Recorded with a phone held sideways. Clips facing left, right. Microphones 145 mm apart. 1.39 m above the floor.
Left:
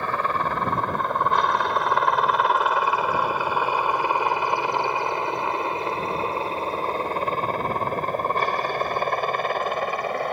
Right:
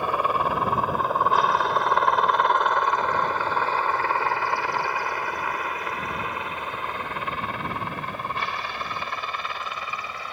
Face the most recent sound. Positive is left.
turn(degrees=55)  # may be behind; listen again after turning